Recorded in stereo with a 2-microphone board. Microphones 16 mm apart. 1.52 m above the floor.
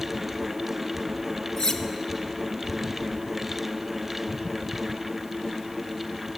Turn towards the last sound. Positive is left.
turn(degrees=45)  # may be behind; listen again after turning